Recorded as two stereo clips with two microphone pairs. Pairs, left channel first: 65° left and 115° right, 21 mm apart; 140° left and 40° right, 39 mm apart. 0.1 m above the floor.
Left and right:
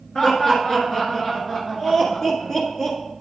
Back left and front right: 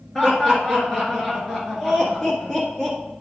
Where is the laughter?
80° left, 1.3 m.